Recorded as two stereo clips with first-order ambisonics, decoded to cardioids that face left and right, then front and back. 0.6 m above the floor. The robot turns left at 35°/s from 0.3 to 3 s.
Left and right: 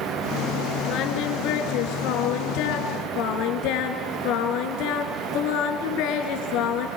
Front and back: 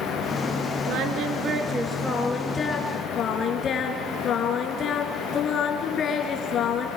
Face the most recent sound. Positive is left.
turn(degrees=65)